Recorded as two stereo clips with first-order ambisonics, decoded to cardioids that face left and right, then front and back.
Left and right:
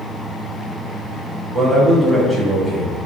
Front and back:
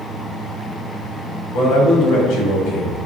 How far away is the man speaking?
About 1.4 m.